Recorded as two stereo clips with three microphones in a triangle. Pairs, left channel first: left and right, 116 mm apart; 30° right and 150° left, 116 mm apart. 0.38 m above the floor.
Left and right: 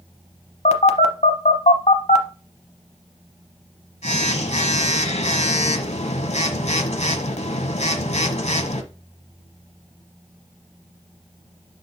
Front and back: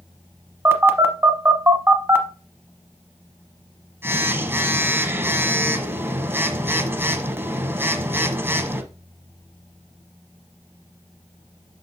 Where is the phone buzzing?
80° left, 0.8 m.